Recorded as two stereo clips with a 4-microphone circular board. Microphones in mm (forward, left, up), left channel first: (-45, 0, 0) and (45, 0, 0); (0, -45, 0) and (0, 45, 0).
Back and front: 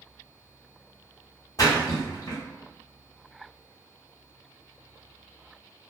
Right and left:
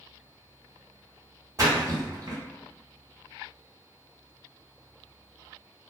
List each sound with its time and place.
1.6 s a splash: 135° left, 1.2 m